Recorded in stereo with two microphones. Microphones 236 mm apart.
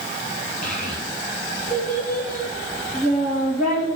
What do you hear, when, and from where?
0.6 s a child speaking: 35° left (ahead or behind), 3.5 m